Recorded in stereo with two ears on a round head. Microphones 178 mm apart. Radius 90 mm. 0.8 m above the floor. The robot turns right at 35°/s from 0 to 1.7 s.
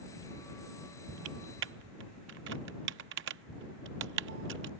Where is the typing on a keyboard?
70° right (ahead or behind); by 4.7 s 55° right (ahead or behind).